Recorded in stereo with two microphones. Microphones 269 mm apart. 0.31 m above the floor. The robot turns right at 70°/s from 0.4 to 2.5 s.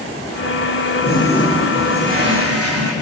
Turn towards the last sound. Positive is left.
turn(degrees=-120)